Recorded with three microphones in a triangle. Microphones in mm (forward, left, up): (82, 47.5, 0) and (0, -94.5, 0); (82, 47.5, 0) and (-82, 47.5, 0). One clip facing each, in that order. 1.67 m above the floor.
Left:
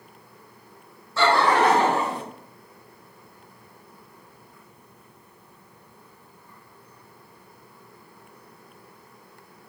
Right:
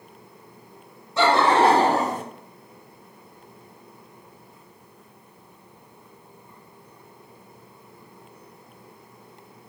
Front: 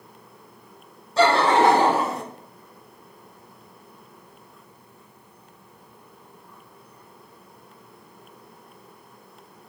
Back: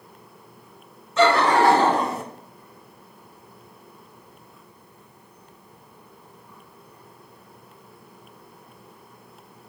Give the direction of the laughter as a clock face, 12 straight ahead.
2 o'clock.